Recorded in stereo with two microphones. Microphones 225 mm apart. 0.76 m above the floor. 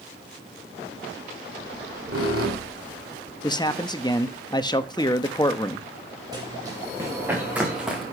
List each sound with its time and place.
1.6 s a squeak: 70° right (ahead or behind), 2.5 m
3.4 s a man speaking: 15° left (ahead or behind), 0.9 m
6.3 s running footsteps: 15° right (ahead or behind), 6 m; by 8.0 s centre (ahead or behind), 4 m